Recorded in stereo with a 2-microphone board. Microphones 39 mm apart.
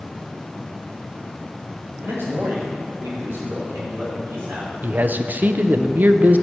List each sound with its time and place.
2.0 s a man speaking: 85° right, 4 m; by 4.7 s 80° right, 7 m
4.8 s a man speaking: 55° right (ahead or behind), 0.5 m